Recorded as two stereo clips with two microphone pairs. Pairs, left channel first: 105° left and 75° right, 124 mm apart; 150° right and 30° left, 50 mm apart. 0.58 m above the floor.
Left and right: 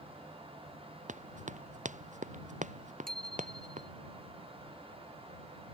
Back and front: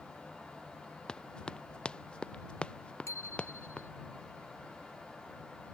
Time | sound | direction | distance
1.1 | running footsteps | 80° right | ?
3.1 | a bicycle bell | 170° right | ?